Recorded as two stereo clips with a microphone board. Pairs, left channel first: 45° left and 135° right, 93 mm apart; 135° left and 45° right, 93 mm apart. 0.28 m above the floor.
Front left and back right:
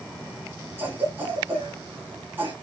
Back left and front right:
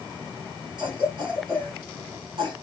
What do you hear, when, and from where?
0.8 s a cough: 70° right, 2.5 m